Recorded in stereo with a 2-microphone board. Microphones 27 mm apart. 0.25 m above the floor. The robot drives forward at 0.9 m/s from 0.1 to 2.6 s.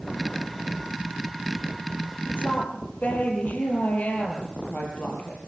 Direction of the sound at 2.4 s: 70° left (ahead or behind).